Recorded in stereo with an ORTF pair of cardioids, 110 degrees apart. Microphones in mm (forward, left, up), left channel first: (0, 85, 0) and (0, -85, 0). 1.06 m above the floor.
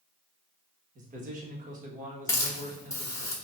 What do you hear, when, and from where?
0.9 s a man speaking: 50° right, 1.4 m
2.3 s a hiss: 15° left, 1.3 m